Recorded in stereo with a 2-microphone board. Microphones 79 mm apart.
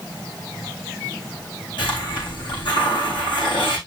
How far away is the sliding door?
No sliding door in this recording.